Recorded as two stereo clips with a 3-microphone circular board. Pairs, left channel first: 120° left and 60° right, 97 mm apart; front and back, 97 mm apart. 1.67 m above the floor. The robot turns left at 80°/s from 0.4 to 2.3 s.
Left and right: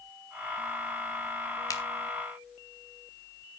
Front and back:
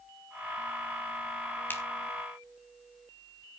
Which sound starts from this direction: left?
A finger snap, at 1.7 s.